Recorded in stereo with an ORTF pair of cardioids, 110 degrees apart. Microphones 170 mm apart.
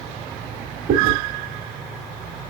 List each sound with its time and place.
0.9 s chewing: 55° right, 1.5 m